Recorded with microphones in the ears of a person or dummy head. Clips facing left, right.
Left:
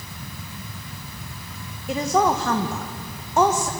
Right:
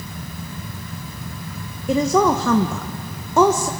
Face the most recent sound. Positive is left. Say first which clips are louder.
# right 4 dB
turn(degrees=-80)